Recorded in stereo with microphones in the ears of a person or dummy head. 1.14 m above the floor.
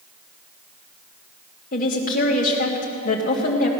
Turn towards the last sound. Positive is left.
turn(degrees=50)  # may be behind; listen again after turning